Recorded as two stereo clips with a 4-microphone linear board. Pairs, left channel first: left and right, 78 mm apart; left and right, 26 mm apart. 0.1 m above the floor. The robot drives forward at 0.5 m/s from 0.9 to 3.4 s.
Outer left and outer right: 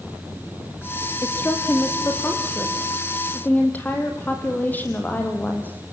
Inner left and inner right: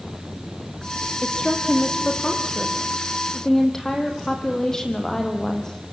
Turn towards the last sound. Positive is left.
turn(degrees=20)  # may be behind; listen again after turning